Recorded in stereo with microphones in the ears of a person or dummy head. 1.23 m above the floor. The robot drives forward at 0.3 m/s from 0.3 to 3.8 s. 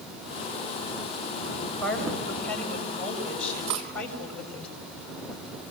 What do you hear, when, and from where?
1.8 s a woman speaking: 10° left (ahead or behind), 7 m
3.7 s cutlery clinking: 80° right, 2.5 m